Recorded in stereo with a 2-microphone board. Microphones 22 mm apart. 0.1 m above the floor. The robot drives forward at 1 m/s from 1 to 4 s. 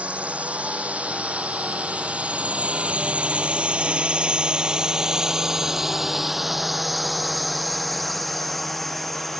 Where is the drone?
70° right (ahead or behind); by 9.4 s 10° left (ahead or behind).